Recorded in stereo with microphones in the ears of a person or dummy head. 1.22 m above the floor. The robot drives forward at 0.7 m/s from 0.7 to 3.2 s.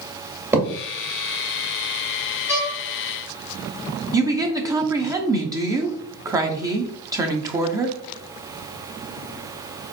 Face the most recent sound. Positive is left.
turn(degrees=-20)  # may be behind; listen again after turning